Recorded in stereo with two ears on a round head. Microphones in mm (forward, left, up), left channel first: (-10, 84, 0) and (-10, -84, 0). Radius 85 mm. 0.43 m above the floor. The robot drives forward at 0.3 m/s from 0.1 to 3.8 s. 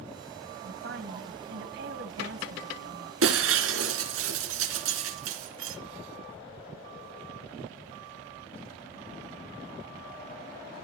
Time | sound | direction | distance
0.6 | a woman speaking | 60° right (ahead or behind) | 3 m
3.2 | breaking glass | 80° right | 3 m